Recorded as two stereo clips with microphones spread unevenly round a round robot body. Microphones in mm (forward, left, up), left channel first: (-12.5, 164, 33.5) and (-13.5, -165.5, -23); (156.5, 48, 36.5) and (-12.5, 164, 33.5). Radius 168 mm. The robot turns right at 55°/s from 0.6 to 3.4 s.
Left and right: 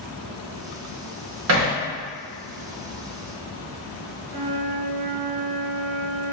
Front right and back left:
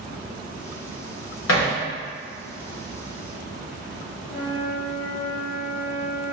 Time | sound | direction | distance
1.5 | hammering | 45° right | 1.1 m
4.3 | a flute | 60° right | 0.9 m